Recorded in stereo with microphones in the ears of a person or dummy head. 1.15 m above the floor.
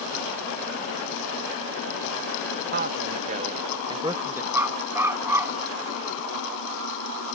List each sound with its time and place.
2.7 s a man speaking: 55° right (ahead or behind); by 4.4 s 15° right (ahead or behind)
4.5 s a dog barking: 20° right (ahead or behind)